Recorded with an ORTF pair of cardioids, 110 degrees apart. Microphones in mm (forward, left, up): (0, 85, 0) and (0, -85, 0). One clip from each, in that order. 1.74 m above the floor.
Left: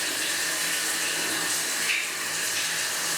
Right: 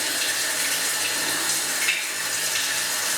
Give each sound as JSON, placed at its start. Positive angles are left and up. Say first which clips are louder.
{"t": 0.0, "sound": "running water", "louder": "right 3 dB", "azimuth_deg": -70, "distance_m": 2.5}